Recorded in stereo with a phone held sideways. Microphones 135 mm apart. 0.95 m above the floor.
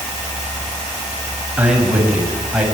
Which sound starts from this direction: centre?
A man speaking, at 1.6 s.